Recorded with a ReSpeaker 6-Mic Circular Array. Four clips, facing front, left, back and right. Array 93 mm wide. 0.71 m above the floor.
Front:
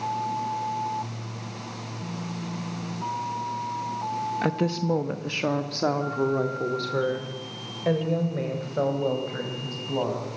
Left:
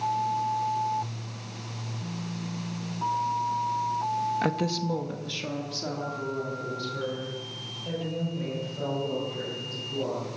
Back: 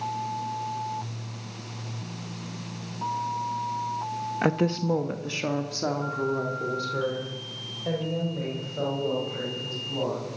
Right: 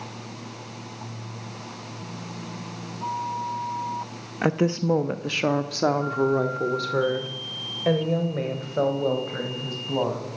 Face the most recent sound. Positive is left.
turn(degrees=-60)